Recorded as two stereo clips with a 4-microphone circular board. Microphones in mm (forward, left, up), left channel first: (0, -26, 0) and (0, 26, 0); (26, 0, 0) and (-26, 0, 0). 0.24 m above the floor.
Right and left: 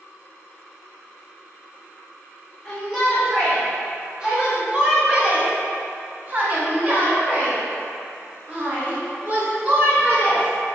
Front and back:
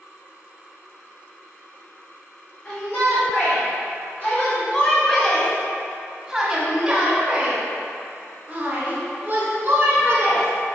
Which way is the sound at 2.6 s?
Straight ahead.